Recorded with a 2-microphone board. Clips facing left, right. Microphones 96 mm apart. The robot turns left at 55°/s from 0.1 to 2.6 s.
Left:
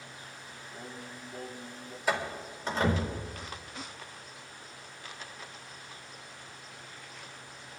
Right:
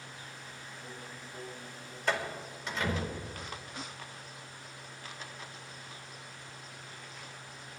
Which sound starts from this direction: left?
Singing, at 0.7 s.